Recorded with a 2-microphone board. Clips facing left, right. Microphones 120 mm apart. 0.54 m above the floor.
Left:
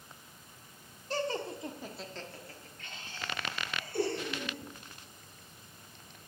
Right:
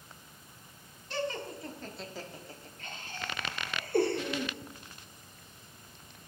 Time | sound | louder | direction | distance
1.1 | laughter | left 1 dB | 40° left (ahead or behind) | 1.4 m